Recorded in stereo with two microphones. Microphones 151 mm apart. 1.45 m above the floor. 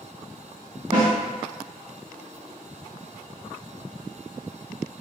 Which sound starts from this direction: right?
A snare drum, at 0.9 s.